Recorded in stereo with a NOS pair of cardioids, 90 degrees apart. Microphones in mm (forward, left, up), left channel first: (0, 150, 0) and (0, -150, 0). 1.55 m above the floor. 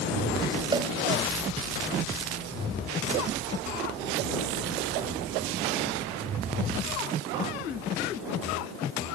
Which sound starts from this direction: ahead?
A cowbell, at 0.7 s.